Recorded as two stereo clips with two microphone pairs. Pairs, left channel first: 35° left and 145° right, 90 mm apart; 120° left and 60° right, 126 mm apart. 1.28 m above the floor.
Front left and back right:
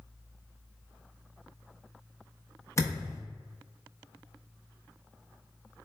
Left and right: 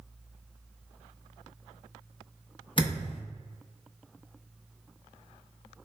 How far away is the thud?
About 0.9 m.